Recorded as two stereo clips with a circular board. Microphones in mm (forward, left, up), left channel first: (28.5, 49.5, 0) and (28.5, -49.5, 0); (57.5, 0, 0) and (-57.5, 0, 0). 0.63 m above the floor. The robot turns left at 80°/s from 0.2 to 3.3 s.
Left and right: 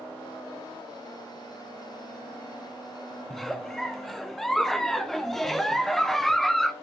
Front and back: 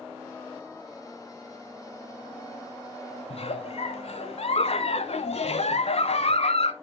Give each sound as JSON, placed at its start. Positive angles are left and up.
{"t": 3.3, "sound": "a giggle", "azimuth_deg": 5, "distance_m": 0.8}